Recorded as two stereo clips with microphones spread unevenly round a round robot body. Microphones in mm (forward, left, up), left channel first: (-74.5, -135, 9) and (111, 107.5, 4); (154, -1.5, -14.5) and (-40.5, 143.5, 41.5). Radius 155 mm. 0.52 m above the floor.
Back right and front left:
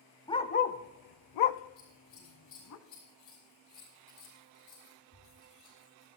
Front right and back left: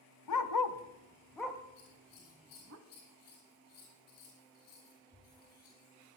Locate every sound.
0.3 s a dog barking: 50° right, 0.8 m; by 2.8 s 170° right, 1.3 m
1.8 s scissors: 80° right, 9 m